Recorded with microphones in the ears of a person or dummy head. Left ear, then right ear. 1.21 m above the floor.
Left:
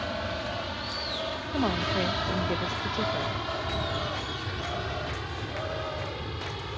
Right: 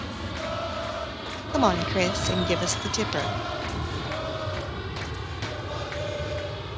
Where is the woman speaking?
30° right (ahead or behind).